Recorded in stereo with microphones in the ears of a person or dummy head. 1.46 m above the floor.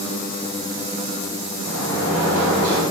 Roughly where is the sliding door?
Right.